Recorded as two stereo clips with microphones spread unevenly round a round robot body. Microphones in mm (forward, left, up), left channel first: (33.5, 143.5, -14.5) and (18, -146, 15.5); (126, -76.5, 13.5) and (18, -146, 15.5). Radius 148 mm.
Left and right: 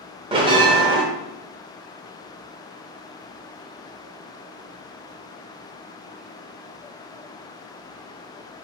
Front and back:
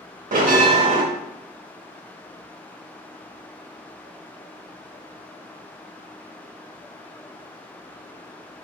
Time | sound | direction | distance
0.3 | a bell | 170° right | 0.7 m